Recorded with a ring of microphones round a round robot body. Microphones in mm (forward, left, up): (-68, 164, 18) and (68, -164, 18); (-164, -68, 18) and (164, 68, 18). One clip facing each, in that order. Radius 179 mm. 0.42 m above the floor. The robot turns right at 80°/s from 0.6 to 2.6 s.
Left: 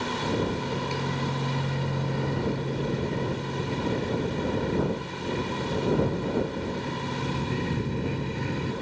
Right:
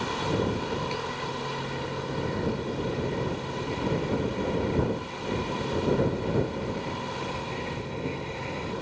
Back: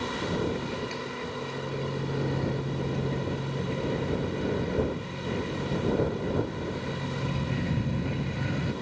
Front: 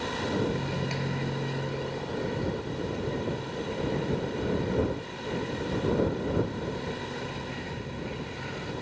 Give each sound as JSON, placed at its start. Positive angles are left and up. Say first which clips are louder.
{"t": 0.5, "sound": "a microwave", "louder": "left 1 dB, even", "azimuth_deg": 20}